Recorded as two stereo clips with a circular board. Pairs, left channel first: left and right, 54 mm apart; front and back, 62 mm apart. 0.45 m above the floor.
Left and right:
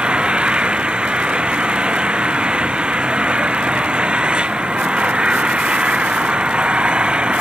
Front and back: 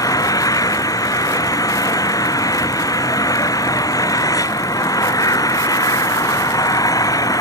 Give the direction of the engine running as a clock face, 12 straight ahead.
1 o'clock.